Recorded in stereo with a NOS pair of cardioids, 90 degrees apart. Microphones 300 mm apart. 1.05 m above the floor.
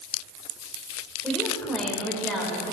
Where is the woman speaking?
Straight ahead, 3.5 m.